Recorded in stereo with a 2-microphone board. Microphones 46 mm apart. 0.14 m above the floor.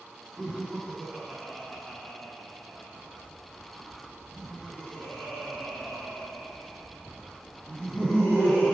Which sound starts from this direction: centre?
Laughter, at 0.4 s.